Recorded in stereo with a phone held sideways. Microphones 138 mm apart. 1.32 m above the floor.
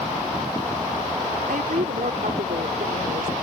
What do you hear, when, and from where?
1.5 s a woman speaking: 85° right